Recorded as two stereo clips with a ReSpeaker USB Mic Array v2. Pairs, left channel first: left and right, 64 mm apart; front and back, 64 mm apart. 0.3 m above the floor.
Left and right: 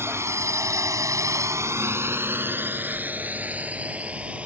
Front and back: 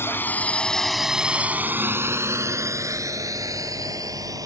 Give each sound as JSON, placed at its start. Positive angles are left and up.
{"t": 0.0, "sound": "a drone", "azimuth_deg": -50}